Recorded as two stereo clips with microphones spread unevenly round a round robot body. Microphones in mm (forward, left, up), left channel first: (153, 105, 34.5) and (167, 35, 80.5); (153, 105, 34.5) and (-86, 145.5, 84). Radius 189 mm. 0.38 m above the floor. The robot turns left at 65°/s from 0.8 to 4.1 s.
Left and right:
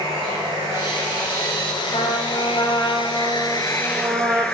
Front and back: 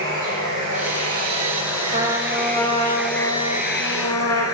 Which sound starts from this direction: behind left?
A trumpet, at 1.9 s.